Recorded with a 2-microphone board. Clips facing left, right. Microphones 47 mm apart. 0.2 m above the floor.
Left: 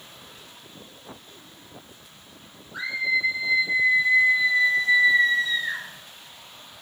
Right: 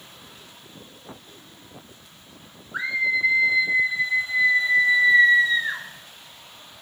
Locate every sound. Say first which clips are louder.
2.7 s a scream: right 2 dB; 45° right (ahead or behind), 2 m